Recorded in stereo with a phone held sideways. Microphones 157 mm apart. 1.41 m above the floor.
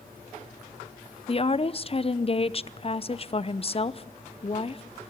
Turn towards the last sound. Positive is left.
turn(degrees=40)  # may be behind; listen again after turning